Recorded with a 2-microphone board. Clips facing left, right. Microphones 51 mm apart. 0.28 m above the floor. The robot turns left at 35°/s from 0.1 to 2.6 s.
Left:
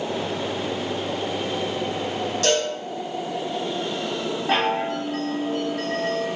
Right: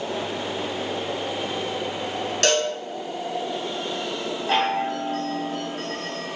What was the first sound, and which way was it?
A cowbell, 80° right.